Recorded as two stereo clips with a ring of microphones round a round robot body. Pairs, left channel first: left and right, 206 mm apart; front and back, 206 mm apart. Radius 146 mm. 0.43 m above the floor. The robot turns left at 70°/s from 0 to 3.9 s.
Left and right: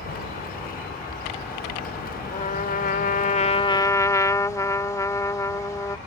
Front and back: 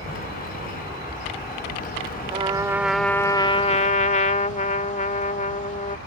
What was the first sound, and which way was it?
An aircraft, 120° right.